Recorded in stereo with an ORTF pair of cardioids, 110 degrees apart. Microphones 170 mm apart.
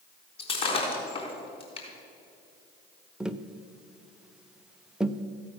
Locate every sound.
0.4 s breaking glass: 35° left, 4 m
3.2 s tapping: 5° right, 0.5 m